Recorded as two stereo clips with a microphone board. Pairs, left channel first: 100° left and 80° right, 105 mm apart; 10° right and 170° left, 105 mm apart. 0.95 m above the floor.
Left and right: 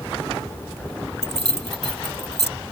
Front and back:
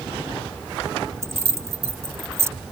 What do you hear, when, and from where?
1.2 s keys jangling: 105° left